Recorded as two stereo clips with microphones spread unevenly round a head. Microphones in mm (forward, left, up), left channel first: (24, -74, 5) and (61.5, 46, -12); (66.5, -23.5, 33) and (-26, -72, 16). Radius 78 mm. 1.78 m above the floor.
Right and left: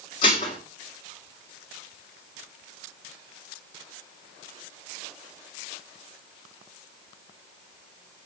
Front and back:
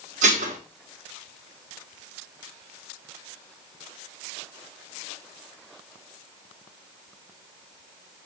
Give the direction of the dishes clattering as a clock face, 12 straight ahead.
5 o'clock.